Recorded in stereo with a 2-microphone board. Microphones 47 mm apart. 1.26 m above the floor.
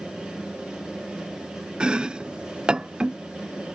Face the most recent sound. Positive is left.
turn(degrees=-20)  # may be behind; listen again after turning